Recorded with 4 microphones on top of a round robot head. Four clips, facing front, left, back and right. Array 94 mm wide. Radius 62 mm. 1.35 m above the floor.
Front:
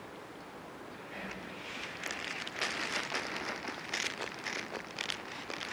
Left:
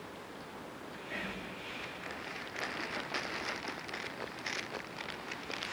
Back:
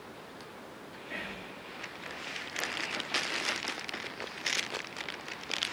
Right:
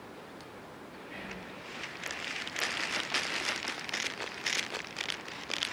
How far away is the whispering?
About 3 m.